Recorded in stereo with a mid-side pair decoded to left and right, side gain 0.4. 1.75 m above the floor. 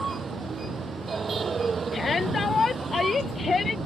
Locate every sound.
0.0 s a vehicle: 40° right
1.9 s a shout: 40° left